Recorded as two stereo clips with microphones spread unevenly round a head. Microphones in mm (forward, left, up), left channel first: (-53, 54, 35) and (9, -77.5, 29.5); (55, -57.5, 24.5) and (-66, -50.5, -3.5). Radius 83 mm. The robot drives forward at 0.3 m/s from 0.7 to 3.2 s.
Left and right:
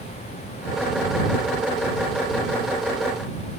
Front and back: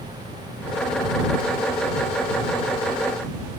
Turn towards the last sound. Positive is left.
No sound to turn to.